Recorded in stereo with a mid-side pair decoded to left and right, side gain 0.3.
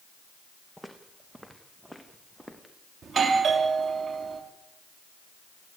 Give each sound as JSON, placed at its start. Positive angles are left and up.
{"t": 0.8, "sound": "footsteps", "azimuth_deg": -10, "distance_m": 4.5}
{"t": 3.0, "sound": "a doorbell", "azimuth_deg": -60, "distance_m": 4.0}